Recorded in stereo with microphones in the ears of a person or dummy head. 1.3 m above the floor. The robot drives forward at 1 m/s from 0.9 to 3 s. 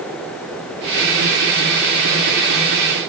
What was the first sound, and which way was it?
Only background noise.